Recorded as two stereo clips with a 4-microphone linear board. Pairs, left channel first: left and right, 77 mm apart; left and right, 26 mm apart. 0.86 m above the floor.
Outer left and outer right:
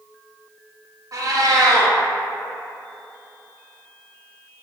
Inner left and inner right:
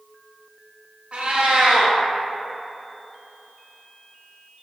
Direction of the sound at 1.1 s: 50° right (ahead or behind).